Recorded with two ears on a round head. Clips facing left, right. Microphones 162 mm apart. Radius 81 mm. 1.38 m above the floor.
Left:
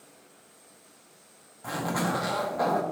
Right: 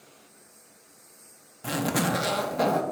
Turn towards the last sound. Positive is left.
turn(degrees=-30)  # may be behind; listen again after turning